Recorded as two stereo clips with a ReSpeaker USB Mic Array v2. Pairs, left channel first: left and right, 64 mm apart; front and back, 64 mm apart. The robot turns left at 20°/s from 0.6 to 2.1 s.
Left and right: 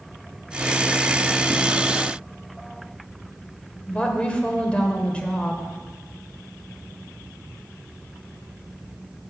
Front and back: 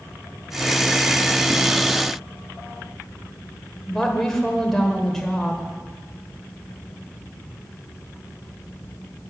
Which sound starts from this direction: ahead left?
A woman speaking, at 3.9 s.